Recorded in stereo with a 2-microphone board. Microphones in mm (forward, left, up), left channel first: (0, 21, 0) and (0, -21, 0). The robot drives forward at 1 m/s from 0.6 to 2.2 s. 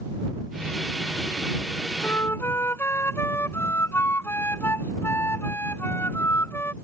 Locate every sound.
2.0 s a flute: 85° left; by 6.7 s 75° left (ahead or behind)